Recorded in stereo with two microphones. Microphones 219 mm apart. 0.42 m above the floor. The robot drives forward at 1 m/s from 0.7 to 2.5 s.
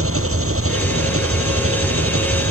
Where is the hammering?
I don't hear hammering.